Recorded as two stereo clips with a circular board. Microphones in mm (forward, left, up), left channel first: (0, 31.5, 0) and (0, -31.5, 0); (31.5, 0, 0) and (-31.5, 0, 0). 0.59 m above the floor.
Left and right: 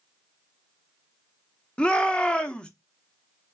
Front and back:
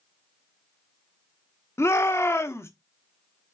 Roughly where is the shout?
Ahead.